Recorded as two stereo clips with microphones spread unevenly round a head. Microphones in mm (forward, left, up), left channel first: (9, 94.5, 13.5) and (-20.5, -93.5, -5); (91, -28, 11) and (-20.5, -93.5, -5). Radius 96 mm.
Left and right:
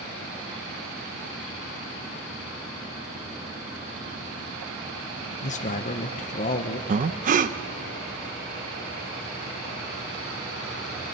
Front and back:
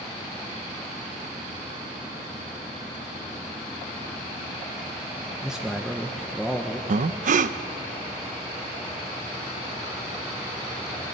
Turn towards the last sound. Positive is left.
turn(degrees=-145)